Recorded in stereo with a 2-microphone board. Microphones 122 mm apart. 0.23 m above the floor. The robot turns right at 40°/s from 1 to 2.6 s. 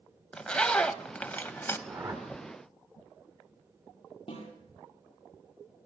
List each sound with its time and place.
0.3 s a zipper: 10° left (ahead or behind), 0.9 m; by 1.8 s 20° left (ahead or behind), 0.9 m
1.9 s a whoosh: 25° right (ahead or behind), 5 m; by 2.2 s 40° right (ahead or behind), 5 m
4.3 s a snare drum: 40° left (ahead or behind), 7 m